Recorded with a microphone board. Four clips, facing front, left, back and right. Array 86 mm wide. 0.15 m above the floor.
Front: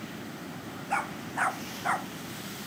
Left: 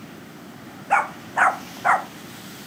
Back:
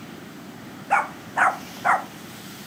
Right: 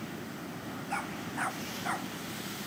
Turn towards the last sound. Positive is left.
turn(degrees=120)